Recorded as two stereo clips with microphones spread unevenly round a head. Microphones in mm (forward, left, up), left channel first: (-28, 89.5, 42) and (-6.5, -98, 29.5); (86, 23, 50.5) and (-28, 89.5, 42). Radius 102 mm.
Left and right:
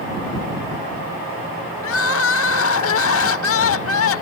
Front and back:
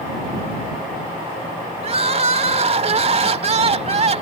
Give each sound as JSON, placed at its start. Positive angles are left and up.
{"t": 1.8, "sound": "crying", "azimuth_deg": 110}